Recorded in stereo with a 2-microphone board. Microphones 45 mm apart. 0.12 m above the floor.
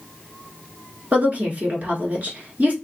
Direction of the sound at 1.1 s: 35° right (ahead or behind).